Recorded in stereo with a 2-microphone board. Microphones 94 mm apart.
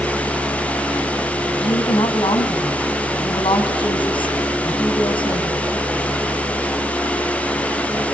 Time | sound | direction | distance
1.6 | a woman speaking | 65° left (ahead or behind) | 3.5 m